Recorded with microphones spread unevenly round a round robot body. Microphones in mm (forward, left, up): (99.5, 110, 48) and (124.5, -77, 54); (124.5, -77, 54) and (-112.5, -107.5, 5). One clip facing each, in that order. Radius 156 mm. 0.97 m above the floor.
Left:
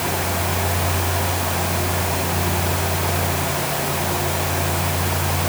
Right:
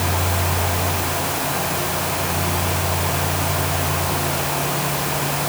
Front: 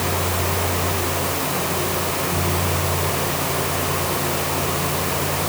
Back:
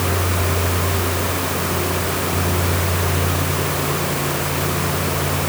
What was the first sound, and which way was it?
Only background noise.